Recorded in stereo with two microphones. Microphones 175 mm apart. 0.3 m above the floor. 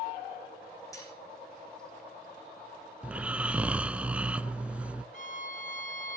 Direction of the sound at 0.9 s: 20° left (ahead or behind).